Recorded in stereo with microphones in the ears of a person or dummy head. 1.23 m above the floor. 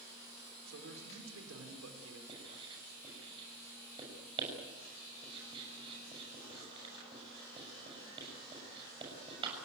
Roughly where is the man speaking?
Right.